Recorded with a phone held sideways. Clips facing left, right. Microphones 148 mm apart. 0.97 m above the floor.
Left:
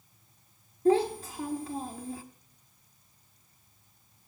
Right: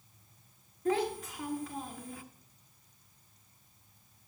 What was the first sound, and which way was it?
A child speaking, 30° left (ahead or behind).